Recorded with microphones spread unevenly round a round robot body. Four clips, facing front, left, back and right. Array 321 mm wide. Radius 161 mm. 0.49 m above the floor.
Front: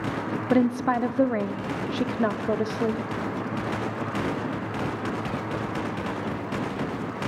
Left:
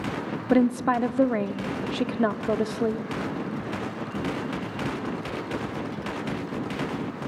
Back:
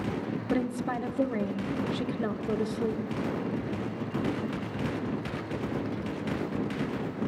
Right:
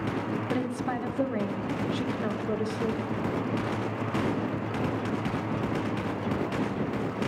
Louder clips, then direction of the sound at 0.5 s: Left 12 dB, front 8 dB; 65° left.